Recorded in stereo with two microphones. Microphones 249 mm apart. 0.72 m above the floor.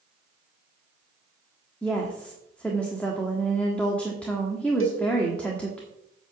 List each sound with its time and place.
1.8 s a woman speaking: 5° left (ahead or behind), 1.3 m
4.8 s a cowbell: 60° left (ahead or behind), 1.2 m